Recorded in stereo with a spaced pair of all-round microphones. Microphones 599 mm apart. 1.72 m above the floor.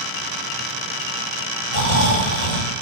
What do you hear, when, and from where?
1.7 s snoring: 80° left, 6 m